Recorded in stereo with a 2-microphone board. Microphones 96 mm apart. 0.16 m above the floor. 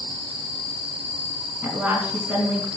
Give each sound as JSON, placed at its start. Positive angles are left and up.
{"t": 1.6, "sound": "a woman speaking", "side_deg": -20, "distance_m": 1.3}